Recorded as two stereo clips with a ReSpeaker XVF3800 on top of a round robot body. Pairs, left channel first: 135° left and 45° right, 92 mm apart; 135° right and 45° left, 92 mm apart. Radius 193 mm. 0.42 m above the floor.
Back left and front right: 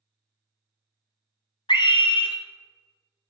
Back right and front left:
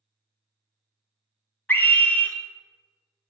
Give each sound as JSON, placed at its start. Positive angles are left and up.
{"t": 1.7, "sound": "a scream", "azimuth_deg": 155, "distance_m": 1.3}